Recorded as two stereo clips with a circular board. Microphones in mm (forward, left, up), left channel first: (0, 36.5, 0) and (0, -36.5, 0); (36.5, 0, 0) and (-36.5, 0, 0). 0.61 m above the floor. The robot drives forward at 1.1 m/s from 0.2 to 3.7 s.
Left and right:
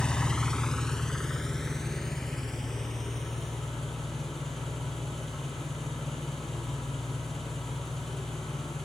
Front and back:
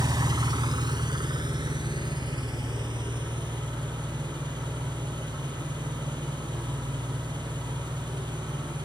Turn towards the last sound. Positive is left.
turn(degrees=175)